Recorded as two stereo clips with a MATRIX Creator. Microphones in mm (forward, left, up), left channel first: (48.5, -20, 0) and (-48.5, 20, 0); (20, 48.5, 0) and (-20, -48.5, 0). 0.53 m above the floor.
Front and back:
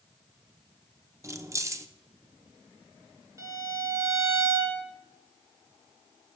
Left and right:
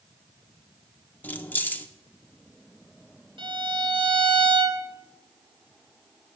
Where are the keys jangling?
130° left, 0.6 m.